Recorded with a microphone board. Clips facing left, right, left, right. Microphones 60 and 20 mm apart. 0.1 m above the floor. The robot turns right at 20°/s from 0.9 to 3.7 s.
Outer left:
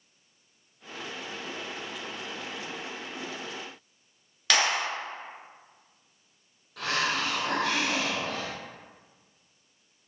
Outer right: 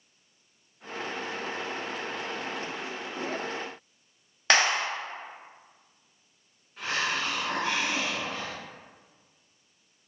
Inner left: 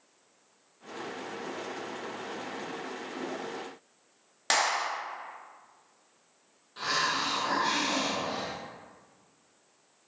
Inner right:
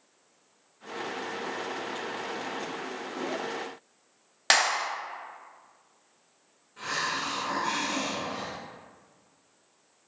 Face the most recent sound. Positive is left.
turn(degrees=75)  # may be behind; listen again after turning